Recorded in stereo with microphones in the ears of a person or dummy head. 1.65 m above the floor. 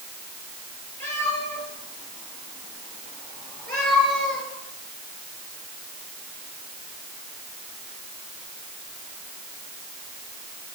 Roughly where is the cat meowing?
Centre.